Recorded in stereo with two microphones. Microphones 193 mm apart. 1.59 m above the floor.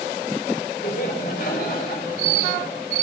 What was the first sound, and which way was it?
Laughter, 50° left (ahead or behind).